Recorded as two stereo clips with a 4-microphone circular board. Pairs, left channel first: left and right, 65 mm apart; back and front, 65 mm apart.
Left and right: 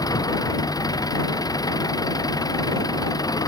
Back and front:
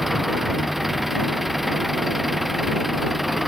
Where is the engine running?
90° left.